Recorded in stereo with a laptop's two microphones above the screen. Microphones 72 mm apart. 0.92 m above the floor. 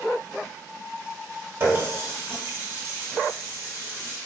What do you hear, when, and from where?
1.6 s a running tap: 30° right (ahead or behind), 1.0 m